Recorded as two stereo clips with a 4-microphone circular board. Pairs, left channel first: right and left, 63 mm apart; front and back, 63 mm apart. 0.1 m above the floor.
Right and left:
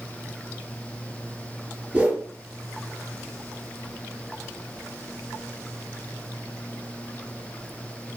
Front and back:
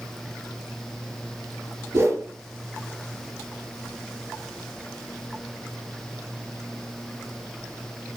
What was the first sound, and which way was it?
A whoosh, 155° left.